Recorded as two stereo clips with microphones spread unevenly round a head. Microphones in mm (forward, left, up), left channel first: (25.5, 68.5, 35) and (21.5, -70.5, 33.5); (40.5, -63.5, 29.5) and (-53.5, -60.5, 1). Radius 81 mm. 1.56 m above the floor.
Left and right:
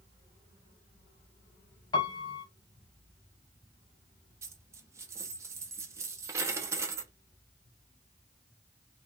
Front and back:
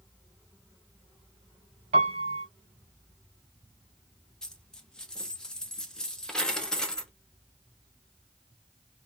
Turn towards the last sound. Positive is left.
turn(degrees=-35)